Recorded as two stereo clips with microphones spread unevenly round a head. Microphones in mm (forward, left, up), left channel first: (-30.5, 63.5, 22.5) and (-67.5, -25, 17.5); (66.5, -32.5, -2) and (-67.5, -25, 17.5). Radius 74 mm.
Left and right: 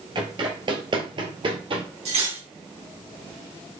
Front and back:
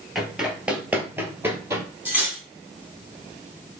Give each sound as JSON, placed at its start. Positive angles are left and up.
{"t": 0.1, "sound": "running footsteps", "azimuth_deg": -105, "distance_m": 2.0}
{"t": 2.0, "sound": "cutlery clinking", "azimuth_deg": -110, "distance_m": 3.0}